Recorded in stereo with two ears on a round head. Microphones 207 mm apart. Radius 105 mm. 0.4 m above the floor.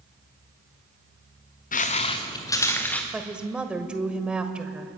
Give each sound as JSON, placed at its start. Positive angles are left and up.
{"t": 1.7, "sound": "footsteps", "side_deg": 35, "distance_m": 1.8}
{"t": 3.1, "sound": "a woman speaking", "side_deg": -5, "distance_m": 1.6}